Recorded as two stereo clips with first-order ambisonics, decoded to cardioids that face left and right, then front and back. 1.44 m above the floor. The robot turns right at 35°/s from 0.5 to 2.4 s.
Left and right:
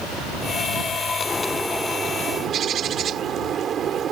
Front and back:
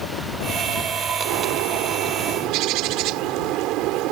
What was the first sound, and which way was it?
A bird, 170° left.